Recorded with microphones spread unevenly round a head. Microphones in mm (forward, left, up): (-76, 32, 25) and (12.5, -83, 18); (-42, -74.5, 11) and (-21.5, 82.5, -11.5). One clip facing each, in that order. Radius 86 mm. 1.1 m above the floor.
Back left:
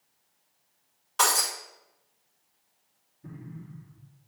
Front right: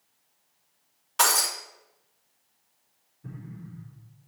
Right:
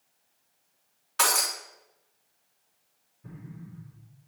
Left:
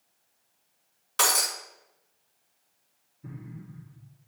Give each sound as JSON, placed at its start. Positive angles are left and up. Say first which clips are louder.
{"t": 1.2, "sound": "breaking glass", "louder": "front right 1 dB, even", "azimuth_deg": 35, "distance_m": 2.5}
{"t": 3.2, "sound": "an explosion", "louder": "front right 1 dB, left 2 dB", "azimuth_deg": 60, "distance_m": 3.0}